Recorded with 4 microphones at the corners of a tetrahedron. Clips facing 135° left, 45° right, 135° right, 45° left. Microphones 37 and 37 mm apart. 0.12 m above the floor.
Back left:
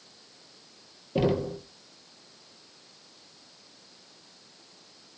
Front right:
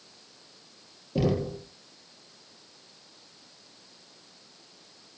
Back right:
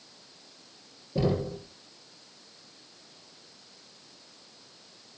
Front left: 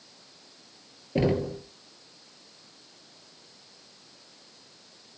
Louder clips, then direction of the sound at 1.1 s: Back left 1 dB, front left 3 dB; 70° left.